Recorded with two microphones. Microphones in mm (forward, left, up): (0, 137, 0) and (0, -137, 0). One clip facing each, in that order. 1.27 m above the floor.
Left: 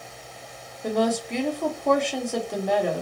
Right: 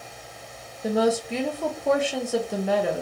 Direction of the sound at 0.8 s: 5° right (ahead or behind).